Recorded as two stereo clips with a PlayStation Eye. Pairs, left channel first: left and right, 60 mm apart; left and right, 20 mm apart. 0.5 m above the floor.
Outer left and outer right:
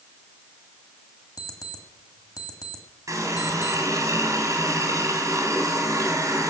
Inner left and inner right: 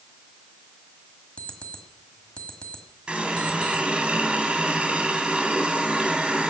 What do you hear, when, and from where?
1.4 s an alarm clock: 80° left, 1.5 m
3.1 s a running tap: 65° right (ahead or behind), 2.5 m